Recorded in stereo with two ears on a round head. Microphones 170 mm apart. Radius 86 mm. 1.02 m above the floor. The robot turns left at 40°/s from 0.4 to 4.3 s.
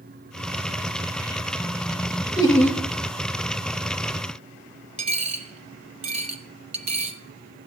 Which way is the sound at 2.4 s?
20° left (ahead or behind).